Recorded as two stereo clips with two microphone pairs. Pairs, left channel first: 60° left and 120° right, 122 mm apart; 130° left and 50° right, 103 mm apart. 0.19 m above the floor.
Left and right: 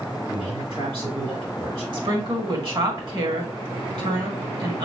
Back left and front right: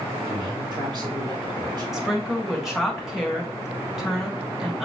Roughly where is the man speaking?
Right.